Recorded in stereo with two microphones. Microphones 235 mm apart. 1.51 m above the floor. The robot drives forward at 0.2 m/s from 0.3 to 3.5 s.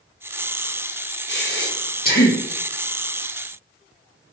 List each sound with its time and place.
1.3 s breathing: 50° left (ahead or behind), 0.7 m; by 2.4 s 40° left (ahead or behind), 0.8 m